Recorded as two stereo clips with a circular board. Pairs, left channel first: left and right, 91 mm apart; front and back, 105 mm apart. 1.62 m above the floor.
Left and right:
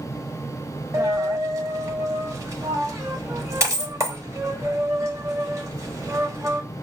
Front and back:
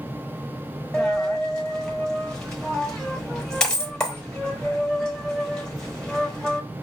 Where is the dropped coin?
80° right, 1.0 m.